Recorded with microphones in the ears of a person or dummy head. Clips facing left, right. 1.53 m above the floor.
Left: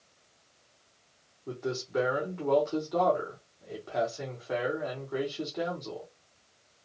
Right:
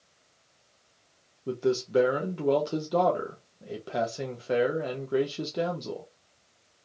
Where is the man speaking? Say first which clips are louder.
Right 7 dB; 40° right (ahead or behind), 1.0 m.